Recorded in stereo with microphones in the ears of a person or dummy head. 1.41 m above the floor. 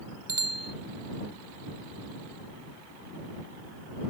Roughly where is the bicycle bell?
Centre.